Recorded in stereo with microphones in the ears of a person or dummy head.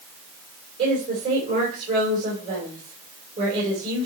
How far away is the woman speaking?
About 4.5 m.